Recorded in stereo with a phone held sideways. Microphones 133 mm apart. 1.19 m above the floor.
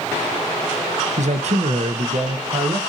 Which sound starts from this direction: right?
A man speaking, at 1.2 s.